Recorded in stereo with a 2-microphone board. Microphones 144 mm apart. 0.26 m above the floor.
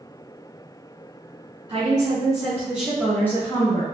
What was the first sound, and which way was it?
A woman speaking, 40° right (ahead or behind).